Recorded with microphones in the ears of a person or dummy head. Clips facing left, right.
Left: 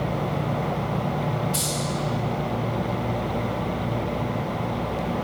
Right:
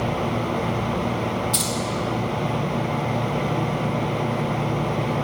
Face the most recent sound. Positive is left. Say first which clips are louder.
# right 2 dB
turn(degrees=-55)  # may be behind; listen again after turning